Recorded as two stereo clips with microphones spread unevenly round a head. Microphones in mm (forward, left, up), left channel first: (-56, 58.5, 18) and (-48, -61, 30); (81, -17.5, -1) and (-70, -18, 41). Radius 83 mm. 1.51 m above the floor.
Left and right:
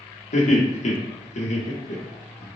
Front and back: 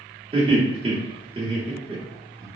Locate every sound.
0.3 s laughter: 120° left, 1.2 m